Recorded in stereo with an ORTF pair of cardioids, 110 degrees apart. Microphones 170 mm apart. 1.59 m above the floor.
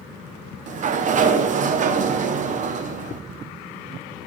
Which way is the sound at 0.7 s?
45° right.